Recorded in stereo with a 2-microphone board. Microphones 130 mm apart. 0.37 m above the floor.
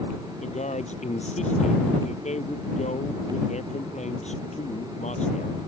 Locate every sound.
0.4 s a man speaking: 60° left (ahead or behind)